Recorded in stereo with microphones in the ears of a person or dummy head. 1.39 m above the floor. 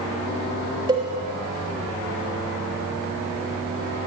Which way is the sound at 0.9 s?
25° right (ahead or behind).